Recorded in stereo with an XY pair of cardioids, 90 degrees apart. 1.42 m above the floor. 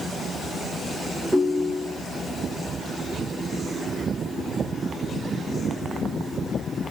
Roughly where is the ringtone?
Ahead.